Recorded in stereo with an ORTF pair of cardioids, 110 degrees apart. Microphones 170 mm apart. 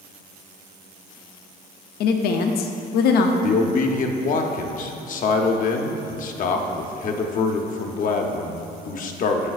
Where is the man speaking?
50° left, 0.8 m.